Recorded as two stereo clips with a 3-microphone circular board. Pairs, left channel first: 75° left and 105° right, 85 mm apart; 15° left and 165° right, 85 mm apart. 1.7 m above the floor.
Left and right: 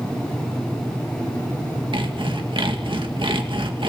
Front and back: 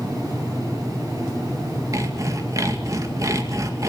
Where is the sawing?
115° right, 2.5 m.